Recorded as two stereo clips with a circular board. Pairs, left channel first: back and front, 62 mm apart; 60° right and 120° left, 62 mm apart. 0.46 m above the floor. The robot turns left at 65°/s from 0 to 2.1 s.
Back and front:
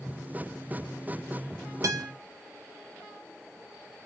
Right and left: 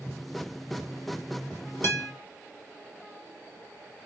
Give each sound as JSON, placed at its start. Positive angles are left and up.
{"t": 1.8, "sound": "a guitar", "azimuth_deg": -20, "distance_m": 1.0}